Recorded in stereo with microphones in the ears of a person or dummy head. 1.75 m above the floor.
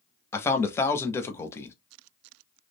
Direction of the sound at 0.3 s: 15° left (ahead or behind).